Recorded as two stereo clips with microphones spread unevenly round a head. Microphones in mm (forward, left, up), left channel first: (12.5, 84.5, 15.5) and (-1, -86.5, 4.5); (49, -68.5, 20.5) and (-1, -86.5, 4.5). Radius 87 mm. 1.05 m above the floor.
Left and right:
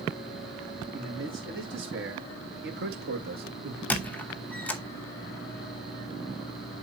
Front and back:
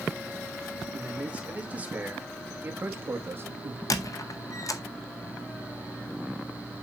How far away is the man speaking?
About 2.5 m.